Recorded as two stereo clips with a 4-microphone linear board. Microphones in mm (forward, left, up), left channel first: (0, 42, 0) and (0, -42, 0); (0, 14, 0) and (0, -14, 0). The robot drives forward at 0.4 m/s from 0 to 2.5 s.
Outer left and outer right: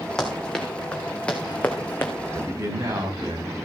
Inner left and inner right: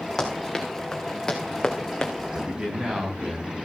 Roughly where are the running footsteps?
Centre.